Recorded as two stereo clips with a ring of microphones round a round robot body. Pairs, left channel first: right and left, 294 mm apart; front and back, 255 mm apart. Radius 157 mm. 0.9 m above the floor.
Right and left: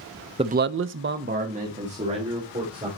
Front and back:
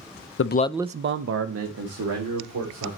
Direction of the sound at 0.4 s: 20° left.